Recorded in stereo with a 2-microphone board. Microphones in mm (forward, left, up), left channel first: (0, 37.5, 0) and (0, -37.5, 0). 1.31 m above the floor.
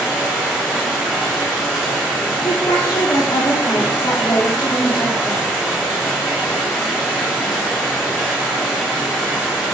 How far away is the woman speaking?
About 0.5 m.